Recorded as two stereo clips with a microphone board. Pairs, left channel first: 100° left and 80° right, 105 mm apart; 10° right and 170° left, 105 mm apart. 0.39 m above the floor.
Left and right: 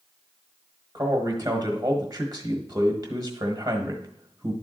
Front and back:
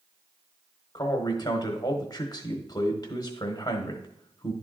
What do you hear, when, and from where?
0.9 s a man speaking: 45° right, 1.1 m